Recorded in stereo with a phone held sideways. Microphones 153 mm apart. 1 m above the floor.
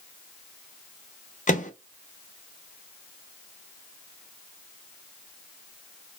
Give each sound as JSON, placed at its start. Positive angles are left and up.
{"t": 1.5, "sound": "a microwave", "side_deg": 55, "distance_m": 0.6}